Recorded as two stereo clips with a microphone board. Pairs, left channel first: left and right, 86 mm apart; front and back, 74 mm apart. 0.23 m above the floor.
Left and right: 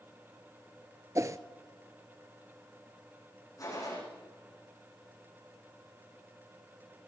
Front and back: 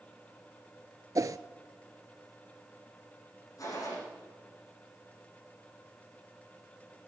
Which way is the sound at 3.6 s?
40° left.